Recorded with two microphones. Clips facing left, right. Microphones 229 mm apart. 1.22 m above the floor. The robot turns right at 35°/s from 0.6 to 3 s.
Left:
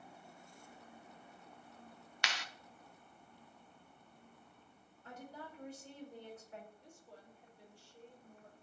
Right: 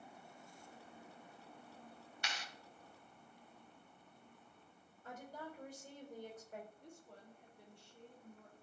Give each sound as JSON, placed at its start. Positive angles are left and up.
{"t": 2.2, "sound": "a clap", "side_deg": 75, "distance_m": 0.6}
{"t": 5.0, "sound": "a woman speaking", "side_deg": -40, "distance_m": 4.5}
{"t": 6.8, "sound": "a woman speaking", "side_deg": -55, "distance_m": 3.0}